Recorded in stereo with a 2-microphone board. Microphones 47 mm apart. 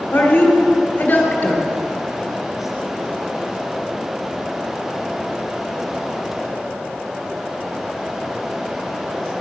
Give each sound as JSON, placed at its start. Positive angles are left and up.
{"t": 0.1, "sound": "a woman speaking", "side_deg": 30, "distance_m": 1.6}